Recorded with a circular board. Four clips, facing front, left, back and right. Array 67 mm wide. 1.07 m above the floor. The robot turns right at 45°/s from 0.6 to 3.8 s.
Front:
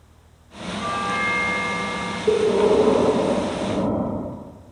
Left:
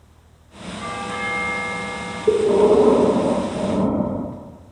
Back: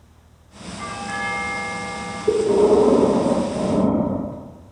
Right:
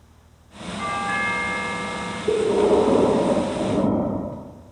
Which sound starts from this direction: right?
A doorbell, at 0.8 s.